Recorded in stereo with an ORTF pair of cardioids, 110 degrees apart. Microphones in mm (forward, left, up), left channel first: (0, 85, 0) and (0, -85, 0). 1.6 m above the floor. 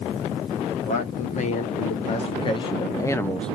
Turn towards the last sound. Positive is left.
turn(degrees=0)